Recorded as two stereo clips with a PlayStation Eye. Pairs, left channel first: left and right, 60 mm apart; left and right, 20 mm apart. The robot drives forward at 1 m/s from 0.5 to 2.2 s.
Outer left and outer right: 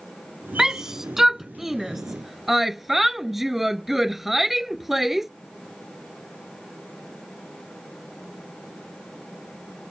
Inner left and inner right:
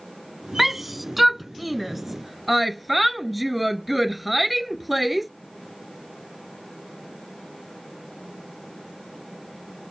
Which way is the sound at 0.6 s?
10° right (ahead or behind).